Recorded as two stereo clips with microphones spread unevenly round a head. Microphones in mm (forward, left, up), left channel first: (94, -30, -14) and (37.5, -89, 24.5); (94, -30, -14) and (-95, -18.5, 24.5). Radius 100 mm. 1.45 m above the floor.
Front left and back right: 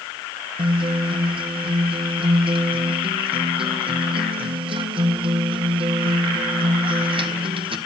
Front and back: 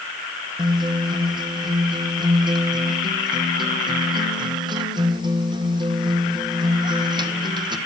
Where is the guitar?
115° right, 1.6 m.